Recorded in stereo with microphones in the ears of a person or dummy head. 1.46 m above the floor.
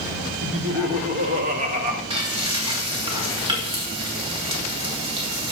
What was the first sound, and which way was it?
Laughter, 50° right (ahead or behind).